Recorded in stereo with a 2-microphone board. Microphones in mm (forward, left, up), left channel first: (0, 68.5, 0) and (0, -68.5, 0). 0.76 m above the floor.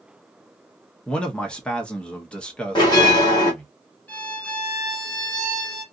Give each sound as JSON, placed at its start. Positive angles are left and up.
{"t": 1.1, "sound": "a man speaking", "side_deg": 5, "distance_m": 0.8}
{"t": 2.8, "sound": "a bell", "side_deg": 30, "distance_m": 2.0}
{"t": 4.1, "sound": "a violin", "side_deg": 10, "distance_m": 2.0}